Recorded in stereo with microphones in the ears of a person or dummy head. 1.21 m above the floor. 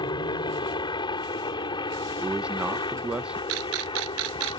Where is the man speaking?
5° right (ahead or behind).